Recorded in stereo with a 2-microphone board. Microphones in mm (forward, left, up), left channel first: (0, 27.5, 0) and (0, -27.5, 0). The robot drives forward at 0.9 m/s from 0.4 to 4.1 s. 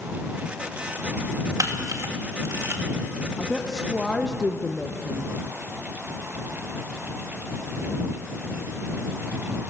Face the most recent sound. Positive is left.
turn(degrees=5)  # may be behind; listen again after turning